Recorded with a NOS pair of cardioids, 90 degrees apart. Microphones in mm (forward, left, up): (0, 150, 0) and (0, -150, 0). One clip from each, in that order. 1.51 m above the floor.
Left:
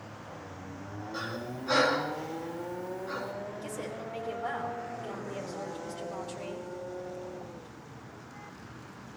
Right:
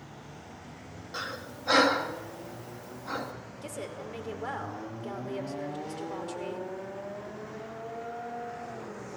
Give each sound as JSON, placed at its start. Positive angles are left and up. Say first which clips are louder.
{"t": 1.1, "sound": "breathing", "louder": "right 1 dB", "azimuth_deg": -50, "distance_m": 2.5}
{"t": 3.6, "sound": "a woman speaking", "louder": "left 1 dB", "azimuth_deg": -25, "distance_m": 5.0}